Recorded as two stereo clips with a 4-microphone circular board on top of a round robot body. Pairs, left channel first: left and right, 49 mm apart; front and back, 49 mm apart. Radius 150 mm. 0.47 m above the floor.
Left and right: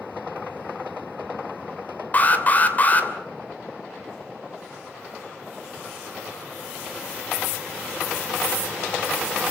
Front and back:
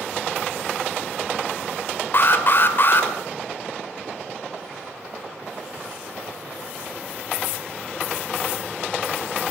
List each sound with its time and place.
2.1 s an alarm: 40° left, 3 m